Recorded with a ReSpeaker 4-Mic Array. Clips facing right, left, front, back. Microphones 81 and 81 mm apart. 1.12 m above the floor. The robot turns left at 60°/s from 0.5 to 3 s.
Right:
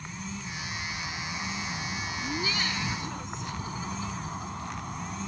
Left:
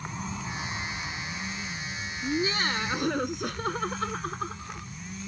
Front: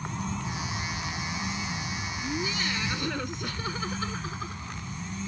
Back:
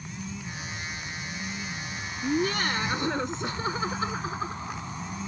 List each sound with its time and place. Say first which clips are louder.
0.0 s an insect: left 3 dB, front 5 dB; 30° left; by 5.3 s 120° right
2.2 s laughter: left 6 dB, back 7 dB; 160° left; by 4.9 s 115° left